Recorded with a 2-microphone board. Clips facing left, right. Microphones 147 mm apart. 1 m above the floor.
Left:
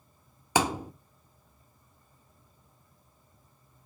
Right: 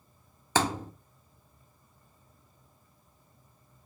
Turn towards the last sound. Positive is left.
turn(degrees=15)  # may be behind; listen again after turning